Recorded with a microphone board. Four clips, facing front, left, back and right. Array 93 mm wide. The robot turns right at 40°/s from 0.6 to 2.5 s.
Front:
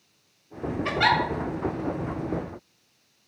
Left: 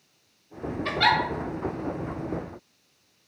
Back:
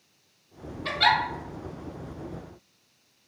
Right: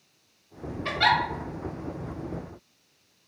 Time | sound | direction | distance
0.8 | a giggle | 10° right | 0.7 m